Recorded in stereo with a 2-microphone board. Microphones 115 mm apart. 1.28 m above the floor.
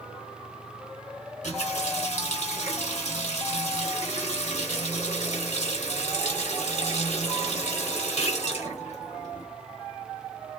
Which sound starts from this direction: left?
A running tap, at 1.4 s.